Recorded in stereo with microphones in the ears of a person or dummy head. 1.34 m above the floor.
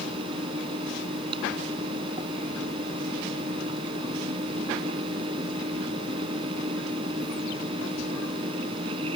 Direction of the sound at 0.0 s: 30° right (ahead or behind).